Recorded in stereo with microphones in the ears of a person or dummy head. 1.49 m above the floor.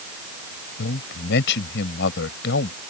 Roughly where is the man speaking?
Left.